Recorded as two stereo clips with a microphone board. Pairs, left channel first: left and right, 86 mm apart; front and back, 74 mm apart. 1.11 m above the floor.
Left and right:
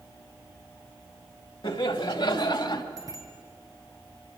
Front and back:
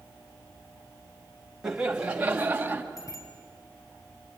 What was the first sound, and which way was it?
Laughter, 100° left.